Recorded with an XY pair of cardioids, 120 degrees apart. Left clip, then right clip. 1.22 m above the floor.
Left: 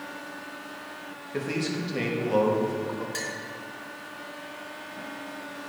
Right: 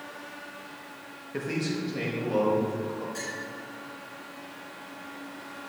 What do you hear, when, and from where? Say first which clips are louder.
1.3 s a man speaking: left 1 dB; straight ahead, 1.1 m; by 3.0 s 45° left, 2.5 m
3.1 s a clink: left 3 dB; 65° left, 1.5 m